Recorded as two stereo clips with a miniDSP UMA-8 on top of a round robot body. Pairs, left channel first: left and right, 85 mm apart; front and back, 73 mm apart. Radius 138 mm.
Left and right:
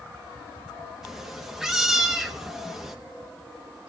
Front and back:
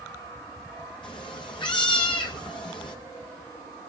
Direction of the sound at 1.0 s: 5° right.